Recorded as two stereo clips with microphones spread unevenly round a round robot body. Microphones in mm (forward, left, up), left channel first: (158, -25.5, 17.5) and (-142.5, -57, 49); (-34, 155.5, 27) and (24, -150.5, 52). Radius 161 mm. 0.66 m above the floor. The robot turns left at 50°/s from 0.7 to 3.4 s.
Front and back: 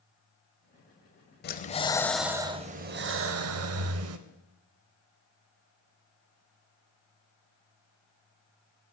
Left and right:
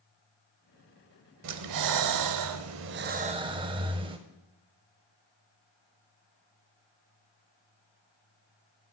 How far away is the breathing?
About 0.6 m.